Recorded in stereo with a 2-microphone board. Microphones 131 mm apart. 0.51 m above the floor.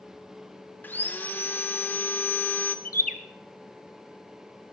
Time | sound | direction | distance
0.8 | sawing | 15° left (ahead or behind) | 0.6 m
2.9 | a bird | 80° left | 0.6 m